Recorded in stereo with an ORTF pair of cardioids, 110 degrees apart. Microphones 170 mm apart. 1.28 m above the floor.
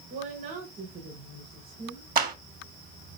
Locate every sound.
0.1 s a woman speaking: 60° right, 7 m
2.1 s a clap: 60° right, 2.5 m